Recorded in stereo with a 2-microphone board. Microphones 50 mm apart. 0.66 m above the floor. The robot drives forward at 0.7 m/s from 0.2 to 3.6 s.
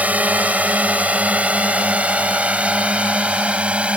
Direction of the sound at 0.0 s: 30° right (ahead or behind).